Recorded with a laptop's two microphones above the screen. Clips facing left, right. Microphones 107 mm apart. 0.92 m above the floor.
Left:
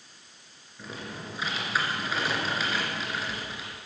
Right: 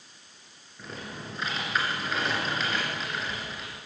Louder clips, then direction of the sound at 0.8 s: Left 1 dB; 5° left (ahead or behind).